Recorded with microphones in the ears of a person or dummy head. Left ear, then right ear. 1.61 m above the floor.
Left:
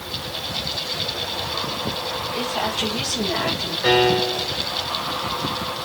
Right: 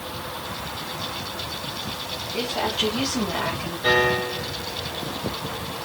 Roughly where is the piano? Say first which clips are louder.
Left 2 dB; left.